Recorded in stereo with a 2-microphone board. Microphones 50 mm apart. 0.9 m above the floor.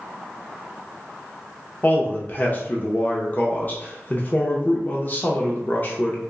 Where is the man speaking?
40° left (ahead or behind), 0.8 m.